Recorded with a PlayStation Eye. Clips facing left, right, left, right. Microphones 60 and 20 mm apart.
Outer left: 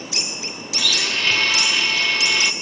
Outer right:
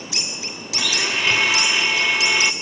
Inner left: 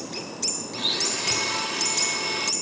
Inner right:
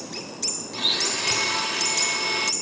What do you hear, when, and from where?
0.7 s a blender: 10° right (ahead or behind), 0.7 m